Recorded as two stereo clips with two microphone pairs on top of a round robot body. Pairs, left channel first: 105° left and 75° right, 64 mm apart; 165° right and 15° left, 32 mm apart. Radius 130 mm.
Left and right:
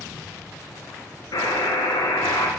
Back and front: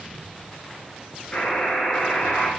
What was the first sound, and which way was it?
A buzzer, 130° left.